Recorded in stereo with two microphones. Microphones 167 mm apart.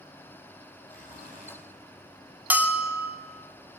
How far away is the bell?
About 0.8 m.